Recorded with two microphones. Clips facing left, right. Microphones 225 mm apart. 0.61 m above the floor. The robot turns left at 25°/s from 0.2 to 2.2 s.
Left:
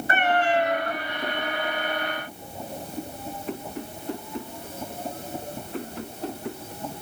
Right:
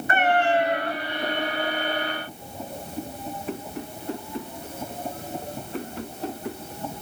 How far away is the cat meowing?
About 3 m.